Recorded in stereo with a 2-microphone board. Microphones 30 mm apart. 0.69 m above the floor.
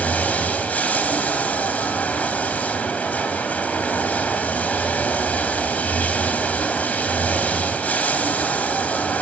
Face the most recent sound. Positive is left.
turn(degrees=60)  # may be behind; listen again after turning